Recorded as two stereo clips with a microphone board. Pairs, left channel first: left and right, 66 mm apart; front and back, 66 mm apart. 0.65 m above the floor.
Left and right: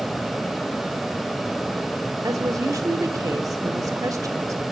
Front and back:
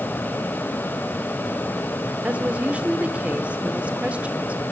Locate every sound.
2.2 s a woman speaking: 110° right, 1.6 m